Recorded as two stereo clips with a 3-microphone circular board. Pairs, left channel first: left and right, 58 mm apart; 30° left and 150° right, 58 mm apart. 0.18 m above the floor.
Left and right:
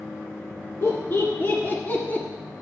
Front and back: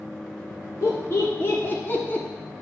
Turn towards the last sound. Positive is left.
turn(degrees=55)